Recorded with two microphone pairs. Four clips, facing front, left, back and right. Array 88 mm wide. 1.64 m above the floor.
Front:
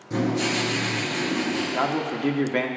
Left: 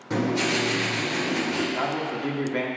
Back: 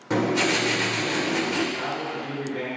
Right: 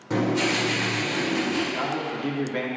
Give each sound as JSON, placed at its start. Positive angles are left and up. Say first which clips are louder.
{"t": 0.1, "sound": "writing", "louder": "right 1 dB, back 2 dB", "azimuth_deg": -175, "distance_m": 4.5}
{"t": 1.7, "sound": "a man speaking", "louder": "left 1 dB, front 4 dB", "azimuth_deg": 5, "distance_m": 1.6}